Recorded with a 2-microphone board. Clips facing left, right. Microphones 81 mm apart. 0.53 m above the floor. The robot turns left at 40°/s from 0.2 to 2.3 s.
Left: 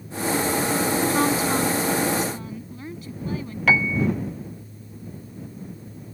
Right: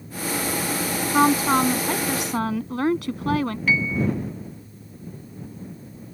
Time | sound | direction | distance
1.1 | a woman speaking | 30° right | ?
3.7 | a piano | 70° left (ahead or behind) | ?